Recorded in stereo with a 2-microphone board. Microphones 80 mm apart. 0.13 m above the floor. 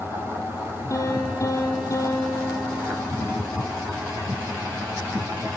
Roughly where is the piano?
Left.